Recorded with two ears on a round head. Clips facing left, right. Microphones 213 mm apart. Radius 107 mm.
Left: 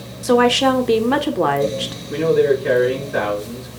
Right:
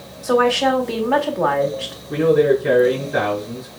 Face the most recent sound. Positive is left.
turn(degrees=0)  # may be behind; listen again after turning